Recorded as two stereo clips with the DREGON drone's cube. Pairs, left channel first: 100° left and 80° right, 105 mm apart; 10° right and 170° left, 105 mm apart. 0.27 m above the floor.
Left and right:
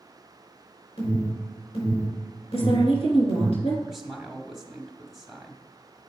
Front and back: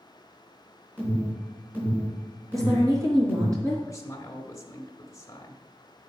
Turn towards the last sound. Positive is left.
turn(degrees=10)